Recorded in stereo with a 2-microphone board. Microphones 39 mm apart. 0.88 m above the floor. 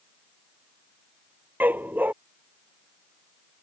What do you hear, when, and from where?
1.6 s a dog barking: 55° right (ahead or behind)